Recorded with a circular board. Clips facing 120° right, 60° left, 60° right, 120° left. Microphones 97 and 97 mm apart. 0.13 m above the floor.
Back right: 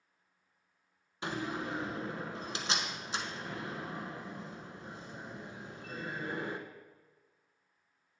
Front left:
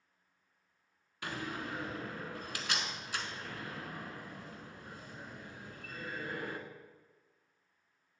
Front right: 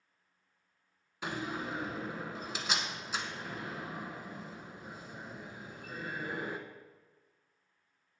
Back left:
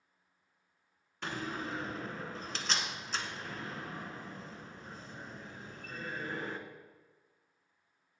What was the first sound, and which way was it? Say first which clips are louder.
A door slam: back right 4 dB, front right 1 dB; 130° right.